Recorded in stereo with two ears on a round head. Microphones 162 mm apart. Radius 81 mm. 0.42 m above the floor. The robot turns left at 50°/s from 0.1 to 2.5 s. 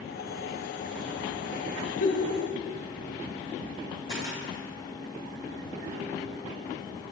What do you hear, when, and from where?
2.0 s a giggle: 70° left (ahead or behind), 5 m; by 2.3 s 85° left, 5 m
4.1 s a camera shutter: 25° right (ahead or behind), 5 m